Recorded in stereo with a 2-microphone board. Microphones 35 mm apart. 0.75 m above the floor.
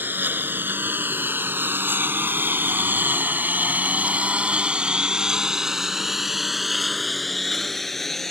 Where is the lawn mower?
70° right (ahead or behind); by 8.3 s 10° left (ahead or behind).